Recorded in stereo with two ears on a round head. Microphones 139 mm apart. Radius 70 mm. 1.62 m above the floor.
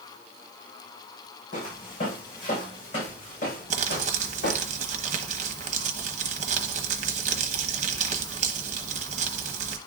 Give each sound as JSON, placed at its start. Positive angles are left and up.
{"t": 1.5, "sound": "footsteps", "side_deg": 50, "distance_m": 5.5}
{"t": 3.7, "sound": "crumpling", "side_deg": -45, "distance_m": 1.0}